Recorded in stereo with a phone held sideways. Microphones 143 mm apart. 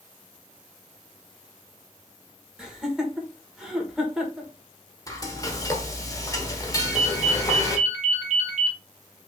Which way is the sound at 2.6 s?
5° right (ahead or behind).